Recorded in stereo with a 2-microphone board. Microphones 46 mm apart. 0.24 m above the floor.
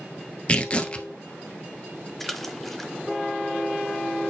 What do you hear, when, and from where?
0.5 s tearing paper: 25° left (ahead or behind), 0.8 m
2.2 s a splash: 5° left (ahead or behind), 1.1 m